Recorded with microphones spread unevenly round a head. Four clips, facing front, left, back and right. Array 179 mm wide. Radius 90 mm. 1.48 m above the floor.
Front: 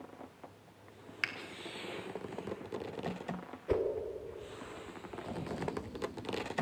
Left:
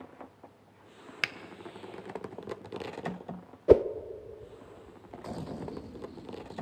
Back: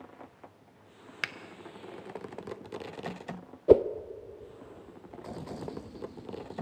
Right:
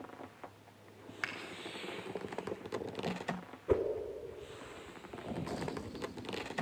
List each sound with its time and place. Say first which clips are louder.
1.2 s a finger snap: left 4 dB, back 2 dB; 105° left, 0.6 m
3.7 s a whoosh: left 11 dB, back 13 dB; 145° left, 0.5 m